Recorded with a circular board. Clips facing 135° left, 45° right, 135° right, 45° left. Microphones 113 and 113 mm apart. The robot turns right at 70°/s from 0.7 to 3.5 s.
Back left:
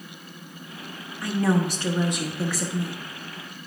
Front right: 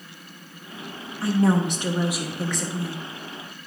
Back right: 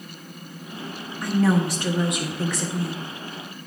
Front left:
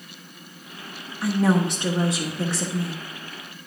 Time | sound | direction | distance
1.2 | a woman speaking | 35° right | 0.9 m